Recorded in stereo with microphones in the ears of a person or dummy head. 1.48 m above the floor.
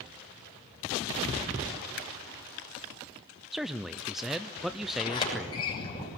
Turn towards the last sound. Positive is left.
turn(degrees=30)  # may be behind; listen again after turning